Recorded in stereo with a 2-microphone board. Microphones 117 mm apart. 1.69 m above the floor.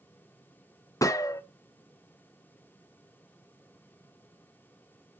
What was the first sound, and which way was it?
A gunshot, 30° left (ahead or behind).